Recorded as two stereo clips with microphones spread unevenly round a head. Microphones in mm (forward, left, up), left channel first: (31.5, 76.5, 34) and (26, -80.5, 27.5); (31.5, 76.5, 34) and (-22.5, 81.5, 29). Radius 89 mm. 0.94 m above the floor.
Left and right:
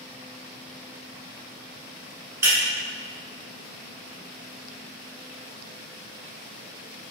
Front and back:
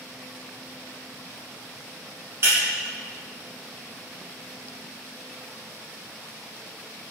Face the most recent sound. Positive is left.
turn(degrees=-165)